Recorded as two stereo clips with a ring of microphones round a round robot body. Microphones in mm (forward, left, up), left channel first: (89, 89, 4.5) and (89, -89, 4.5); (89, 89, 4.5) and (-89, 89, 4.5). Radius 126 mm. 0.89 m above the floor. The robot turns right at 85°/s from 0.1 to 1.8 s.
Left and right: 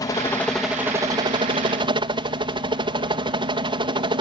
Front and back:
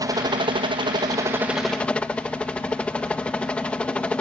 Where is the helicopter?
140° left; by 4.2 s 80° right.